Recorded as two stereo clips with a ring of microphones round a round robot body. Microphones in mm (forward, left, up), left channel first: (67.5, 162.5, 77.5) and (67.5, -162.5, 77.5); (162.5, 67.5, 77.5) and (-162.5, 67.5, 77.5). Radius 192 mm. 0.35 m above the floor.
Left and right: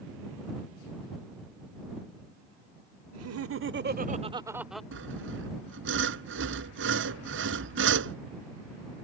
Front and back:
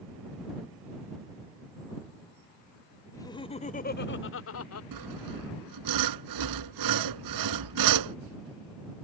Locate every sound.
3.1 s laughter: 80° right; by 4.8 s straight ahead
4.9 s sawing: 150° right